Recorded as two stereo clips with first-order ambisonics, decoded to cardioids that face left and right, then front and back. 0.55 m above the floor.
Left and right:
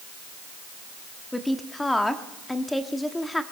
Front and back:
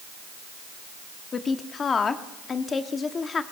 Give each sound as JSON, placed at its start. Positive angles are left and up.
{"t": 1.3, "sound": "a woman speaking", "azimuth_deg": 15, "distance_m": 0.9}